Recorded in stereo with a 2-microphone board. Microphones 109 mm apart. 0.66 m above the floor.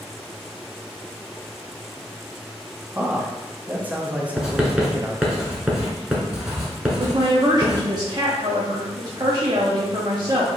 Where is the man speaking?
15° right (ahead or behind), 0.7 m.